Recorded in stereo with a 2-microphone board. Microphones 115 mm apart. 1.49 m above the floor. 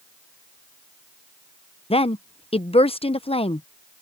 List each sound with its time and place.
1.9 s a woman speaking: 60° left (ahead or behind)